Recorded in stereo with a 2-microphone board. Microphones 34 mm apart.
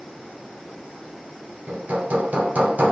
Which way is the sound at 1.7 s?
50° right (ahead or behind).